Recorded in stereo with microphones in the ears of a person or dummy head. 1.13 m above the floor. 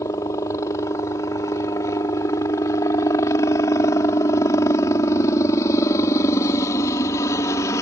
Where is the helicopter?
20° left (ahead or behind).